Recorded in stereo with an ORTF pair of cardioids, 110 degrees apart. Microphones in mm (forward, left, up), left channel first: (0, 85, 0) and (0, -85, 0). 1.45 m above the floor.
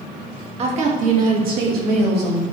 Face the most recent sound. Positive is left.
turn(degrees=-75)